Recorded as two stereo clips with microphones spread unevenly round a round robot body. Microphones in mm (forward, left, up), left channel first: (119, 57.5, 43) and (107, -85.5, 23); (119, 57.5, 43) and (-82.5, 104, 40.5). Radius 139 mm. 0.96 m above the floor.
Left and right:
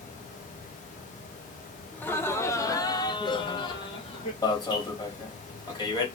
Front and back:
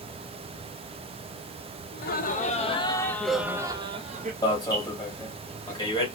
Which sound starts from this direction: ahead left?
An alarm, at 4.4 s.